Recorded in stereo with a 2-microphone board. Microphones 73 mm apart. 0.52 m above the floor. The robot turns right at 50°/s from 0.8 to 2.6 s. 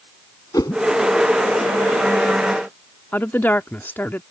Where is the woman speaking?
30° left (ahead or behind).